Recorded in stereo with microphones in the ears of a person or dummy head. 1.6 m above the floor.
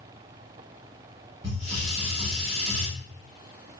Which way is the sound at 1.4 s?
25° right (ahead or behind).